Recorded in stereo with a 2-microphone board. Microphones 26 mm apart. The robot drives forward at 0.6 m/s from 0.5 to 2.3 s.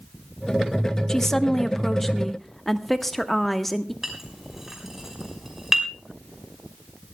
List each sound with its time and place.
1.1 s a woman speaking: 20° left (ahead or behind), 0.7 m; by 3.9 s 10° left (ahead or behind), 1.4 m
4.0 s a clink: 10° right (ahead or behind), 5.5 m